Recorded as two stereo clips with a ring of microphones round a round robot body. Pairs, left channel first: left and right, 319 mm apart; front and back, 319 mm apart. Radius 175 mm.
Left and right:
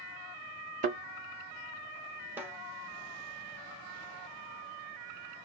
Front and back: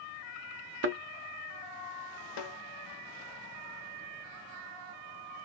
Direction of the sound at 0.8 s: 145° right.